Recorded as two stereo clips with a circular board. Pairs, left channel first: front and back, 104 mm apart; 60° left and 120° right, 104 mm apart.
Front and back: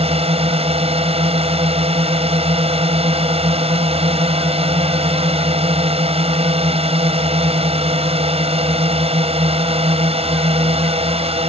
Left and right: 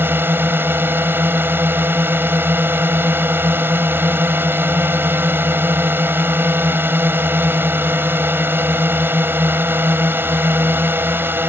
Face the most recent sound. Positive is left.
turn(degrees=170)